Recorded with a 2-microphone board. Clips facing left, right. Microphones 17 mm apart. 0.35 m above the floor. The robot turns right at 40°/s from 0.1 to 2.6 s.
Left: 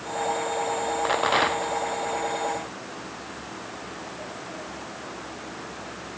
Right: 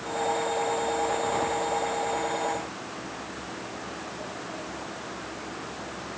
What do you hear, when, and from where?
1.1 s a rattle: 40° left (ahead or behind); by 1.8 s 70° left (ahead or behind)